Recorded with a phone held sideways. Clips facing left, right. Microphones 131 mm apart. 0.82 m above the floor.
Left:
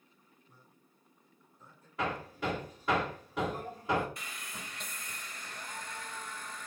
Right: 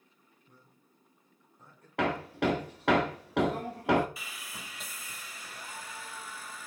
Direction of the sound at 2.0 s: 75° right (ahead or behind).